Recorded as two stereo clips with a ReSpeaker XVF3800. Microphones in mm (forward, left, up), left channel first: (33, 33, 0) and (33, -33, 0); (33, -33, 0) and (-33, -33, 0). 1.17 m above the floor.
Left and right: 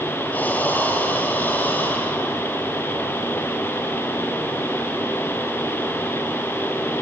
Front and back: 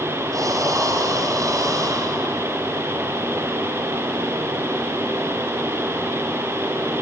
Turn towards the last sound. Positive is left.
turn(degrees=155)